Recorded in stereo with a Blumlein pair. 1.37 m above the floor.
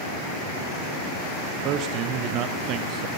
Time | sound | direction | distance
1.6 | a man speaking | 35° right | 0.8 m